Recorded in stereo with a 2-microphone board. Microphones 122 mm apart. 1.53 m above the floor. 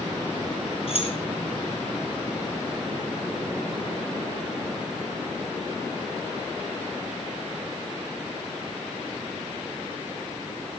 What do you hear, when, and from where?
0.9 s keys jangling: 50° left (ahead or behind), 4 m